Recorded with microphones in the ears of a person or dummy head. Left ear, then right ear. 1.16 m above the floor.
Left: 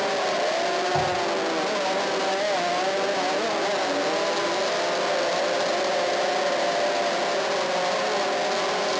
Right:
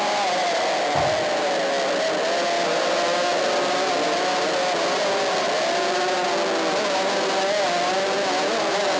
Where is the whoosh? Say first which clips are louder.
Right 2 dB; 20° left (ahead or behind), 0.6 m.